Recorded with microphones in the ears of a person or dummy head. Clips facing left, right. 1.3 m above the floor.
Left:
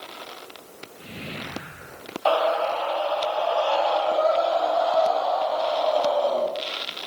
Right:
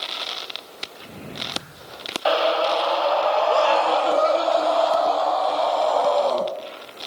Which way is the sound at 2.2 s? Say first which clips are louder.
Right 2 dB; 15° right (ahead or behind).